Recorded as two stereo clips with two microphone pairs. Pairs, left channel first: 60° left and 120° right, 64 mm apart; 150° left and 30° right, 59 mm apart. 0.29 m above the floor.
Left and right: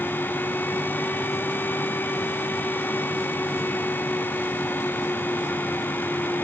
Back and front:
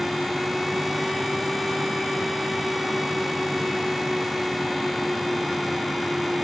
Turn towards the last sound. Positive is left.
No sound to turn to.